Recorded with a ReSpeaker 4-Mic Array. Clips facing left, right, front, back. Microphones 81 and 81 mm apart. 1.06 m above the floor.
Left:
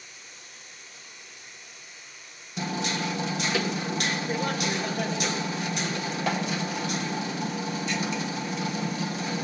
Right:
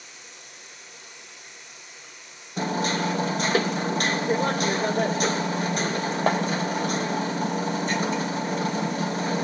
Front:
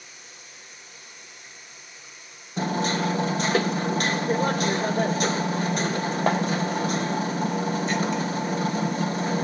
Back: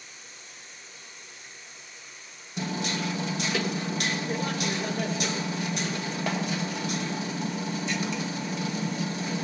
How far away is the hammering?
About 1.3 m.